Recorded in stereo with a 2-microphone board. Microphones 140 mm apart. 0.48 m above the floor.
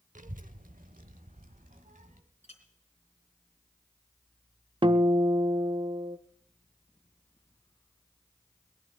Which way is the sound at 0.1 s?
65° right (ahead or behind).